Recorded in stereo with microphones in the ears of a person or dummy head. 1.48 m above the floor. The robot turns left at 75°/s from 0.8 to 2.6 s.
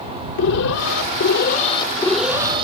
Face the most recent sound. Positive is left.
turn(degrees=-30)